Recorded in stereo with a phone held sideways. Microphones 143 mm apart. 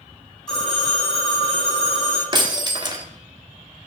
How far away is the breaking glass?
About 1.1 m.